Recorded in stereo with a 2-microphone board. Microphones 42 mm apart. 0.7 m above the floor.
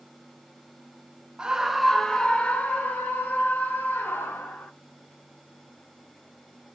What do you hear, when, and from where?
1.4 s a scream: 20° right (ahead or behind), 0.8 m; by 4.7 s 60° left (ahead or behind), 2.0 m